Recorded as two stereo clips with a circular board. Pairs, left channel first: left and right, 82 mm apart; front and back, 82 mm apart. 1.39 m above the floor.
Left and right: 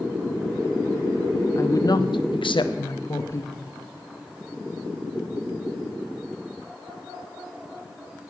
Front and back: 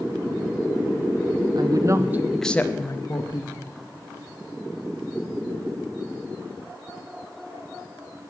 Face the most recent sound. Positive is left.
turn(degrees=30)